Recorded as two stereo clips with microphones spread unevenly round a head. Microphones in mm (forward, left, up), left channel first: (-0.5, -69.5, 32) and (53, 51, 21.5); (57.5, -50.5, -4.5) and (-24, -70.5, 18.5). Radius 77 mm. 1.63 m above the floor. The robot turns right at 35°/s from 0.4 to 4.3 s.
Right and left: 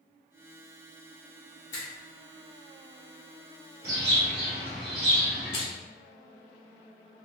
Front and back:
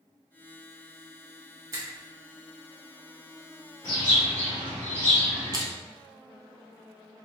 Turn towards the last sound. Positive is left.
turn(degrees=-130)